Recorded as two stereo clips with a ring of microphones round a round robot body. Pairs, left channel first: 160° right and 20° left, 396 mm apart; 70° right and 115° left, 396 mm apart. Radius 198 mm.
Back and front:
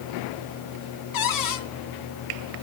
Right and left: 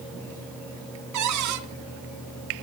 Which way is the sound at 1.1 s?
160° left.